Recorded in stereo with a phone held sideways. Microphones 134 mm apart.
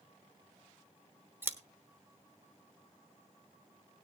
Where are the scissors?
15° right (ahead or behind), 1.1 m.